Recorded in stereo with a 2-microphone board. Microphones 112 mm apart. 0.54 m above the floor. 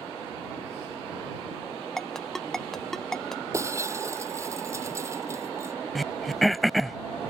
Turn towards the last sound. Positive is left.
turn(degrees=0)  # may be behind; listen again after turning